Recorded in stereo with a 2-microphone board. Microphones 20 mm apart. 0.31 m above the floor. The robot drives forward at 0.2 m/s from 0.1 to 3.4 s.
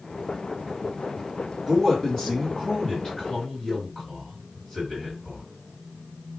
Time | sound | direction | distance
1.7 | a man speaking | 30° left (ahead or behind) | 1.7 m